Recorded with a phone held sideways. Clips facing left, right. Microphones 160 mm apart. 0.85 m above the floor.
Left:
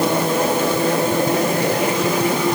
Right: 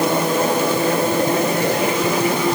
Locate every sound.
Only background noise.